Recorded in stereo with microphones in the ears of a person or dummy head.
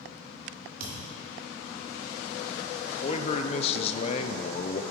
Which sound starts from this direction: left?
A man speaking, at 3.0 s.